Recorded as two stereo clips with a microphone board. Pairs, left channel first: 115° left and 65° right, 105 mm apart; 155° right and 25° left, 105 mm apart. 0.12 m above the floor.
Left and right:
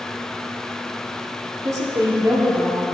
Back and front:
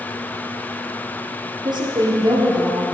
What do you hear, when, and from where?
1.6 s a woman speaking: 15° right, 3 m